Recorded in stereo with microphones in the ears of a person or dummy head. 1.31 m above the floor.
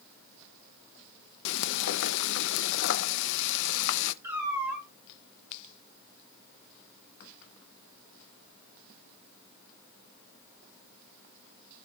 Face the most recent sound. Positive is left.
turn(degrees=-10)  # may be behind; listen again after turning